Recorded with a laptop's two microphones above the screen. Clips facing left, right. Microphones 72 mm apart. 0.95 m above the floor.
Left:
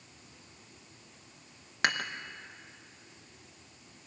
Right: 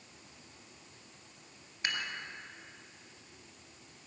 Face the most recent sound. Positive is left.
turn(degrees=85)